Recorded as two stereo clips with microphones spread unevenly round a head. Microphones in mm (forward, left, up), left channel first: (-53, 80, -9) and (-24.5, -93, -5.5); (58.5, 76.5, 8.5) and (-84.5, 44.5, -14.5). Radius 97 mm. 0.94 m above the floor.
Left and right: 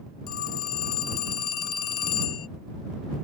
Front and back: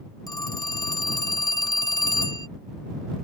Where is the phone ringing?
80° left.